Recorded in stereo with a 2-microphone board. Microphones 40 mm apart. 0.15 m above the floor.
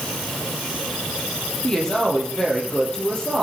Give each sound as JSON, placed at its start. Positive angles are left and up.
{"t": 1.6, "sound": "a woman speaking", "side_deg": 20, "distance_m": 4.0}